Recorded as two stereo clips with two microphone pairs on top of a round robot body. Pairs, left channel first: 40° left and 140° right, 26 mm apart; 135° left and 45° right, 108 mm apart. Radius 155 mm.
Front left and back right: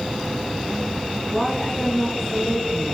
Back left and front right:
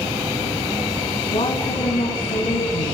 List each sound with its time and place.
1.3 s a woman speaking: 125° left, 5 m